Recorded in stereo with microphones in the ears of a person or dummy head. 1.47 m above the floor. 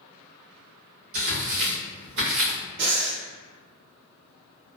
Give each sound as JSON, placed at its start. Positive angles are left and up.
{"t": 1.1, "sound": "tearing paper", "side_deg": -50, "distance_m": 0.9}
{"t": 2.8, "sound": "breathing", "side_deg": -60, "distance_m": 0.7}